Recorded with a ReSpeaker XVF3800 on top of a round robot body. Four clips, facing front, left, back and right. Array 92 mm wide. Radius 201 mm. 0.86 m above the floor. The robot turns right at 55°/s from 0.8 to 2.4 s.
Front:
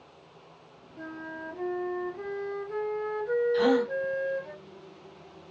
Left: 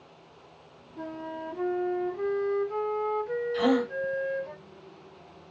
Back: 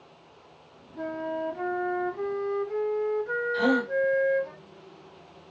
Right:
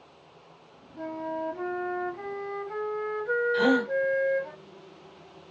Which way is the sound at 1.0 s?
Straight behind.